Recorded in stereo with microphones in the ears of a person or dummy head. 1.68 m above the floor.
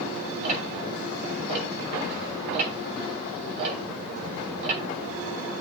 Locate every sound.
0.4 s ticking: 40° right (ahead or behind), 3 m